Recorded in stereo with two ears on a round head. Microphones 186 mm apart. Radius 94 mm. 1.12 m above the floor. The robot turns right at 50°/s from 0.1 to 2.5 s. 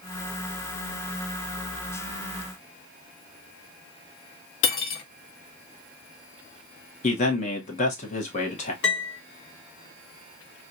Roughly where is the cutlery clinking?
Left.